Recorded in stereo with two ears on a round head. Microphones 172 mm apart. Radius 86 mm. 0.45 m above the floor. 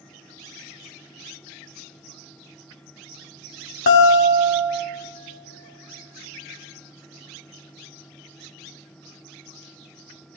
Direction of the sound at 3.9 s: 65° left (ahead or behind).